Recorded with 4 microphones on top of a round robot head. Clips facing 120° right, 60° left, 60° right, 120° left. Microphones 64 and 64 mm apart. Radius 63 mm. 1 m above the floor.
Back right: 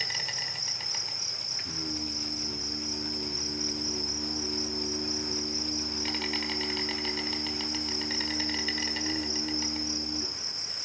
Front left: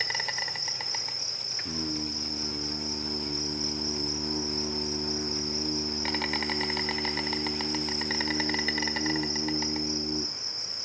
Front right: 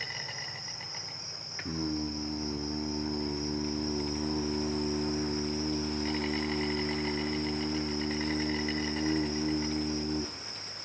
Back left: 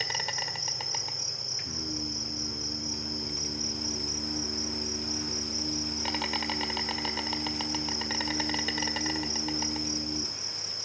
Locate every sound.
0.0 s an insect: 115° left, 1.3 m
1.6 s singing: 5° right, 0.9 m